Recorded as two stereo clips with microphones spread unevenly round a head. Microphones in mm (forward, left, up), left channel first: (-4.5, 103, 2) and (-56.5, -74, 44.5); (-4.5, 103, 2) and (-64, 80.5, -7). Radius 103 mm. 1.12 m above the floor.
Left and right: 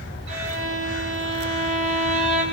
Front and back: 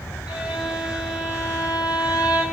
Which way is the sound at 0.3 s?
70° right.